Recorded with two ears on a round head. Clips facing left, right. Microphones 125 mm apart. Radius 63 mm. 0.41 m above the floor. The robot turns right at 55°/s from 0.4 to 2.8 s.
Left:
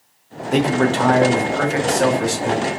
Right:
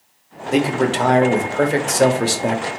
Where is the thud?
I don't hear a thud.